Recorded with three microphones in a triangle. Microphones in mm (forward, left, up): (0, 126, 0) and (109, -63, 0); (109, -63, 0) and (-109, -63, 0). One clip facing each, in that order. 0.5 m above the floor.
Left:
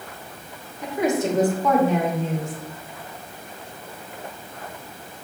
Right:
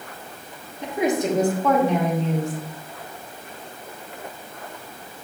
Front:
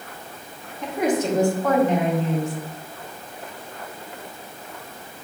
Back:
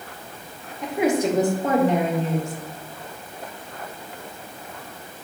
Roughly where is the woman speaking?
Right.